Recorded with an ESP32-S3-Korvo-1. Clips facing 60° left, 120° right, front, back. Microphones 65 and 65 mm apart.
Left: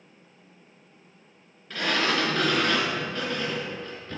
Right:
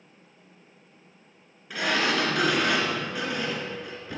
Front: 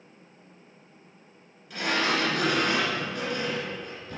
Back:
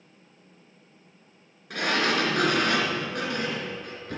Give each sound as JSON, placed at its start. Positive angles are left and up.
{"t": 1.7, "sound": "a sliding door", "azimuth_deg": 160, "distance_m": 2.5}